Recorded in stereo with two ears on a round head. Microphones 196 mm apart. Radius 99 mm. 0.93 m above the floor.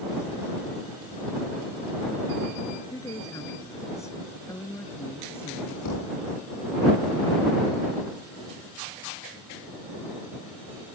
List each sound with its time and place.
2.9 s a woman speaking: 15° left (ahead or behind); by 5.8 s 10° left (ahead or behind)
5.8 s a thud: 90° left